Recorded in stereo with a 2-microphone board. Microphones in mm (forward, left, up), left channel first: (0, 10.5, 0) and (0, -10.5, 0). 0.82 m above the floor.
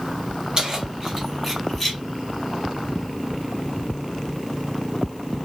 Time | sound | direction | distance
0.6 | keys jangling | 35° right (ahead or behind) | 1.2 m